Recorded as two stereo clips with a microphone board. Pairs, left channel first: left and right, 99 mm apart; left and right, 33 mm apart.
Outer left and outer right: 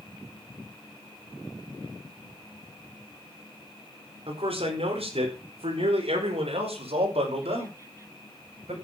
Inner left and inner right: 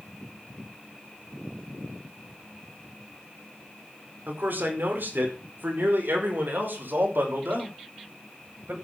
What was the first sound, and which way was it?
A man speaking, 75° right (ahead or behind).